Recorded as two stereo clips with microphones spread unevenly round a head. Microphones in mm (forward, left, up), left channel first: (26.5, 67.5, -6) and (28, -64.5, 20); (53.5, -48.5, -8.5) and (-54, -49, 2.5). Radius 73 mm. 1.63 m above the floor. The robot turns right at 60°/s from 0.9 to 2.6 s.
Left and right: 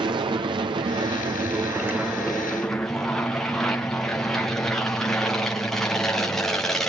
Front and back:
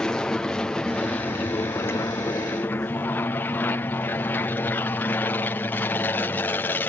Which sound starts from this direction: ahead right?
An aircraft, at 0.0 s.